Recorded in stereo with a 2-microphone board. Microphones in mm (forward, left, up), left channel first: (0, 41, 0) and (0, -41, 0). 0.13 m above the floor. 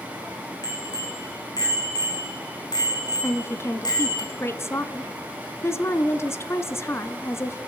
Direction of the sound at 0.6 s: 55° left (ahead or behind).